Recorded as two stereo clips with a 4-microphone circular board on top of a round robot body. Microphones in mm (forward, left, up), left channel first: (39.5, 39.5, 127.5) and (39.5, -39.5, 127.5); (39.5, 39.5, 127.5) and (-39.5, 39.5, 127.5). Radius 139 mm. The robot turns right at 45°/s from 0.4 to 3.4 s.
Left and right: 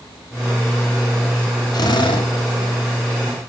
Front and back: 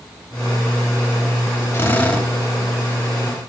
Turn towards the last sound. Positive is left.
turn(degrees=135)